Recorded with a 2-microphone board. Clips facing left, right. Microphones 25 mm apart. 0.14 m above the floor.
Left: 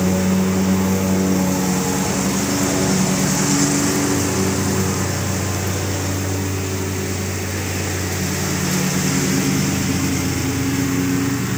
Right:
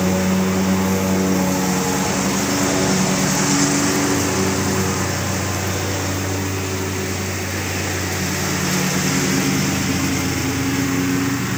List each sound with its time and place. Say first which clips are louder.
0.0 s a lawn mower: even; 10° right (ahead or behind)